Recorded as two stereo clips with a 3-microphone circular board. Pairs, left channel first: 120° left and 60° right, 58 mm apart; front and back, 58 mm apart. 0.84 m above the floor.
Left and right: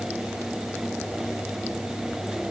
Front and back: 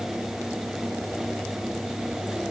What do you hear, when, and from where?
Only background noise.